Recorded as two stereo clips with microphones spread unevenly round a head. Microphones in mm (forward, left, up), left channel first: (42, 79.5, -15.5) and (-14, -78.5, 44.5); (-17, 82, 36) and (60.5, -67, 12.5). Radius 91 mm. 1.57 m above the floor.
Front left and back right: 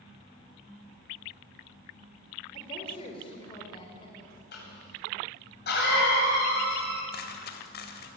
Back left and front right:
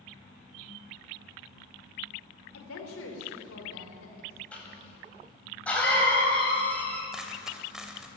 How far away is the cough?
About 9 m.